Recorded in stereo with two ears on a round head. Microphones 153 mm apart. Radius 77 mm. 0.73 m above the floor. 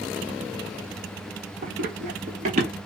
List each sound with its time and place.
1.6 s running footsteps: 50° right (ahead or behind), 1.1 m; by 2.7 s 45° right (ahead or behind), 1.3 m